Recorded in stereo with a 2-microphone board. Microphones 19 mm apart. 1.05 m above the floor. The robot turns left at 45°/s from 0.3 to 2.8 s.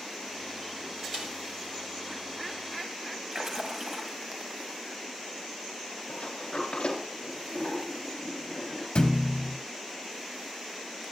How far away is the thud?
About 2.5 m.